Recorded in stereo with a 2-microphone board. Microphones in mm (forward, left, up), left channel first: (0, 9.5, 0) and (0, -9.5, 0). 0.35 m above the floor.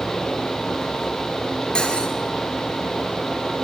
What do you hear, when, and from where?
1.8 s cutlery clinking: 50° left (ahead or behind), 4 m